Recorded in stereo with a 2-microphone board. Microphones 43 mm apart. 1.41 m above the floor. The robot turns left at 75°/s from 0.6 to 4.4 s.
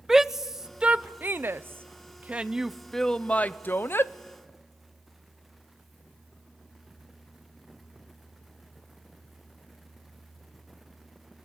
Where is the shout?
10° right (ahead or behind), 0.6 m; by 4.1 s 55° left (ahead or behind), 0.6 m.